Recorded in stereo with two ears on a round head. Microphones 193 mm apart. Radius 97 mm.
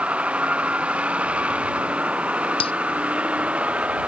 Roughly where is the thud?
I don't hear a thud.